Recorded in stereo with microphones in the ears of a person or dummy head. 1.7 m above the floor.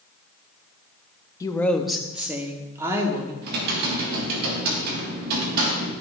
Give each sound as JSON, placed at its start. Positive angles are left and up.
{"t": 1.4, "sound": "a woman speaking", "side_deg": 15, "distance_m": 0.6}
{"t": 3.4, "sound": "typing on a keyboard", "side_deg": -50, "distance_m": 1.6}